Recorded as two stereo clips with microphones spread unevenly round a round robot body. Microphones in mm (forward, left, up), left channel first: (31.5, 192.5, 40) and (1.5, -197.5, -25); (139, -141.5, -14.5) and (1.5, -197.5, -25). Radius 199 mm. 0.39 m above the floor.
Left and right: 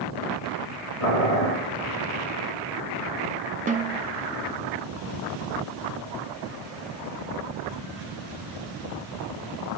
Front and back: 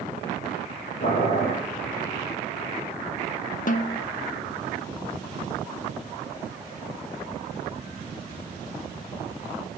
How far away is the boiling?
About 4 m.